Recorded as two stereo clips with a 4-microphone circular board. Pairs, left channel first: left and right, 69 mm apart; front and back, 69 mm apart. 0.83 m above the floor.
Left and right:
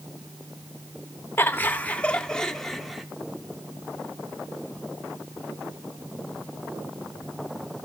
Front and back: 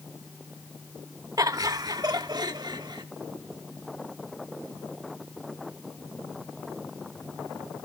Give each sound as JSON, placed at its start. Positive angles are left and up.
{"t": 1.4, "sound": "laughter", "azimuth_deg": 150, "distance_m": 1.5}